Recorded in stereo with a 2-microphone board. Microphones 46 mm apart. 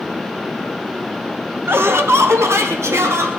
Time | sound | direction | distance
1.7 | laughter | 60° right (ahead or behind) | 1.7 m